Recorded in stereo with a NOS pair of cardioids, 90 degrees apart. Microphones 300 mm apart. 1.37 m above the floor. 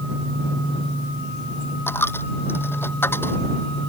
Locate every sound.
1.9 s a dropped coin: 5° left